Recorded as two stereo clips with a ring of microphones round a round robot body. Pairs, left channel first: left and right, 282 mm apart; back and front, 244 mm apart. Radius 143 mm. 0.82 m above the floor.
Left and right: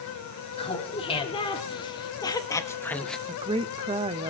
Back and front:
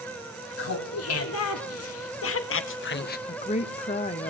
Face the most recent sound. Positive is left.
turn(degrees=-145)